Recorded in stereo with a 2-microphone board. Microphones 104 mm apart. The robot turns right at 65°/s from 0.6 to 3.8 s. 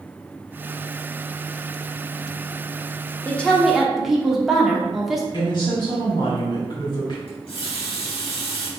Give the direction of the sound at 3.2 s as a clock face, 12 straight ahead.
7 o'clock.